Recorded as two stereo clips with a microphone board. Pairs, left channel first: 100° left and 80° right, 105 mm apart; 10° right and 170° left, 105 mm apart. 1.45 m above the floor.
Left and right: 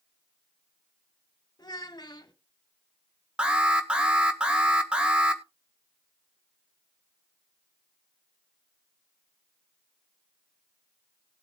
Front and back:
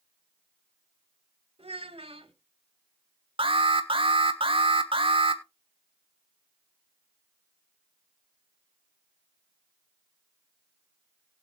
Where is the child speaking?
150° left, 1.7 m.